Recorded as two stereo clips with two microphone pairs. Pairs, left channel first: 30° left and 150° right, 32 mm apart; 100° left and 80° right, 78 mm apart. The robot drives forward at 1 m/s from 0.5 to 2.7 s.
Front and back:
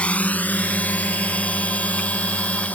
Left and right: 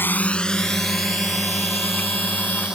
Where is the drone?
55° left; by 2.8 s 5° left.